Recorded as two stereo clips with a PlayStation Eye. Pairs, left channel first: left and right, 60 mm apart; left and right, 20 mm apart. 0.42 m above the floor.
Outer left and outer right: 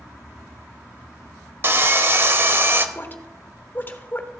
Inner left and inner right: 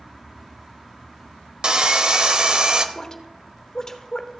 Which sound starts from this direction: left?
A woman speaking, at 3.0 s.